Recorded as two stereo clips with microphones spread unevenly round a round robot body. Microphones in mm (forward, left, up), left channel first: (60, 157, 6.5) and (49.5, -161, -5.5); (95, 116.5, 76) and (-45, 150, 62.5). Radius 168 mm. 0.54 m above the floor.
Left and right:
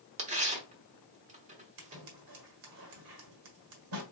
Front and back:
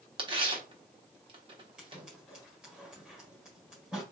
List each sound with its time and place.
0.2 s tearing paper: 155° right, 1.0 m
1.8 s scissors: 110° right, 1.6 m